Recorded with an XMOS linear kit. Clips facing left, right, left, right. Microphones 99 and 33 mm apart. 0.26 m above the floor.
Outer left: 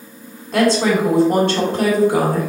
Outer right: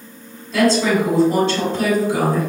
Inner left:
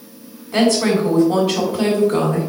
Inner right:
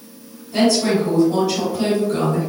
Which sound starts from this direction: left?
A woman speaking, at 0.5 s.